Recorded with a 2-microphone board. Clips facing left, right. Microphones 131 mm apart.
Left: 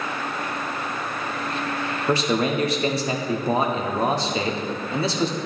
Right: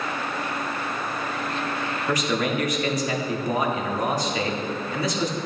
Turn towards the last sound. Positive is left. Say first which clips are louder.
# left 3 dB
turn(degrees=30)  # may be behind; listen again after turning